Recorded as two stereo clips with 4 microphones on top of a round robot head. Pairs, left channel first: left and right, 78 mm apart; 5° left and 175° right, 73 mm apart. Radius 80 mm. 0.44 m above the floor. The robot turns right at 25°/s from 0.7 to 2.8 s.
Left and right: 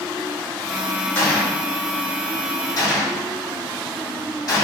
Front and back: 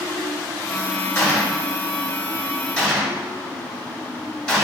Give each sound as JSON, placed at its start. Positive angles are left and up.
{"t": 1.1, "sound": "a gunshot", "azimuth_deg": 45, "distance_m": 1.2}